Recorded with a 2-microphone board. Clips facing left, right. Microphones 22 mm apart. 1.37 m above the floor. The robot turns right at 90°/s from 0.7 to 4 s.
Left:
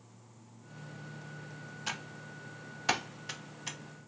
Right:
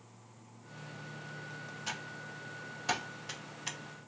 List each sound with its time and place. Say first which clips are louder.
1.9 s typing on a keyboard: left 2 dB; 20° left (ahead or behind), 0.5 m; by 3.8 s 20° right (ahead or behind), 0.5 m